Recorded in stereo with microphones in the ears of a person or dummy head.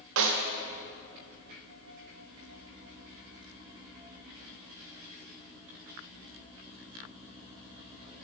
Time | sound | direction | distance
0.2 | a snare drum | 65° right (ahead or behind) | 0.8 m